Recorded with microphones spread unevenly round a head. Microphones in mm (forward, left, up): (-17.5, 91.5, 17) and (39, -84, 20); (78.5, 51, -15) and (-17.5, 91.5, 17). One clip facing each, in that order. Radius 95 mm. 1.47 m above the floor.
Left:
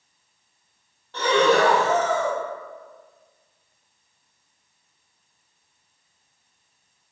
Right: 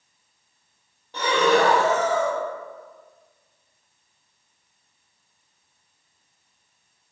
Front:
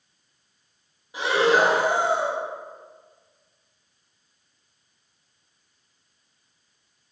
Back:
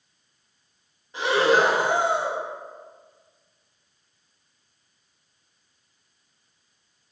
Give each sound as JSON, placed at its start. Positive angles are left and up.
{"t": 1.1, "sound": "breathing", "azimuth_deg": -135, "distance_m": 0.6}